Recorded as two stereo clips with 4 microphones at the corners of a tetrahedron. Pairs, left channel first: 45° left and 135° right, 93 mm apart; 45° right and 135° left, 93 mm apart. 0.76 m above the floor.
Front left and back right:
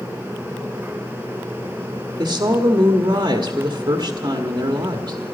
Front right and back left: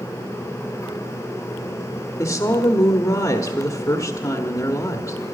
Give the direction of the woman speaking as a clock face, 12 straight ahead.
3 o'clock.